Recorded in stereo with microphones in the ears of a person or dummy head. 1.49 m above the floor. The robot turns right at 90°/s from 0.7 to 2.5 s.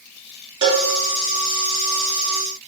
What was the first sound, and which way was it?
A cowbell, 25° right (ahead or behind).